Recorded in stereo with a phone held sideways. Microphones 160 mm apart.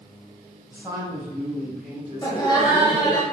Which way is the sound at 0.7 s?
15° right (ahead or behind).